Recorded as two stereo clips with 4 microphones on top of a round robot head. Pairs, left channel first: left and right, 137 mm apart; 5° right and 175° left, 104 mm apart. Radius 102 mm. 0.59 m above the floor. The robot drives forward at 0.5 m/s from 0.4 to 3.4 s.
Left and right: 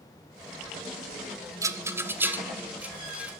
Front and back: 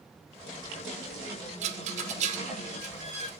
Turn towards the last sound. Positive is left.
turn(degrees=-170)